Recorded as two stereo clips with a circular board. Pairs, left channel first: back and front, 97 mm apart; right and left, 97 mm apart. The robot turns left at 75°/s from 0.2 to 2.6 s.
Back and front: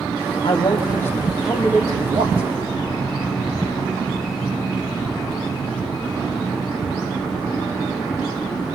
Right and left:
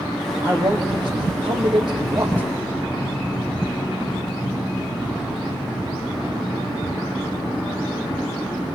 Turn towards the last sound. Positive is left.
turn(degrees=0)